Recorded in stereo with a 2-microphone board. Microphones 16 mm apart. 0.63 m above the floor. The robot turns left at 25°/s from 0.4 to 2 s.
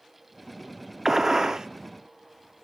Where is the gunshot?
30° right (ahead or behind), 0.5 m; by 1.7 s 40° right (ahead or behind), 0.5 m.